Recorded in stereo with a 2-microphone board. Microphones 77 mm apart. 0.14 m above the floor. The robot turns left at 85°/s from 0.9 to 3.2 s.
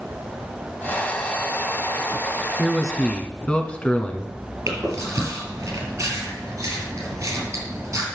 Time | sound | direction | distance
2.6 | a man speaking | 5° right (ahead or behind) | 1.4 m
4.7 | chewing | 40° right (ahead or behind) | 3.5 m